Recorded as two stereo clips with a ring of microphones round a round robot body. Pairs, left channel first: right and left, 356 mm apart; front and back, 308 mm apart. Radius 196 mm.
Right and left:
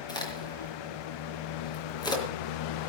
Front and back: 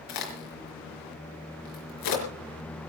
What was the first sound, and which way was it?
A crack, 10° right.